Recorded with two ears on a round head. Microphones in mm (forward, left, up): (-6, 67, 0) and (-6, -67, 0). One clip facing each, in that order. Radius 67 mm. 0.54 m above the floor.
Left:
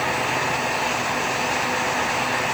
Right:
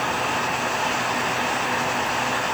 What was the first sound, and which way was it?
Only background noise.